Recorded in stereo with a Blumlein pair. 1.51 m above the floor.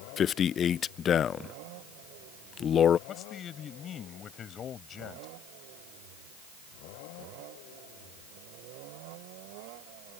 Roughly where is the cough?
I don't hear a cough.